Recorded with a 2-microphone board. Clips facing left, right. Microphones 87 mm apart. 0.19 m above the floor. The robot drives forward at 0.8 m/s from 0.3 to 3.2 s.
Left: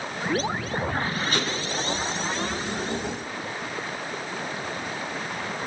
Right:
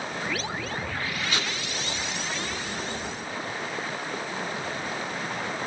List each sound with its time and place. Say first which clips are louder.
1.3 s tape being pulled: left 2 dB; 45° left (ahead or behind), 3.5 m